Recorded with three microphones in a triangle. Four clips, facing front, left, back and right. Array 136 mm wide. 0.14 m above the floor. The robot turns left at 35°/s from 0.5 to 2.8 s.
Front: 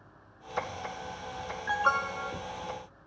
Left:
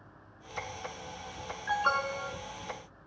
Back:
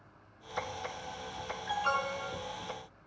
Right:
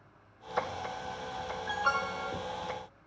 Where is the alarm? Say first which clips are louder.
Left 3 dB, front 4 dB; 25° left, 1.3 m; by 2.3 s straight ahead, 1.3 m.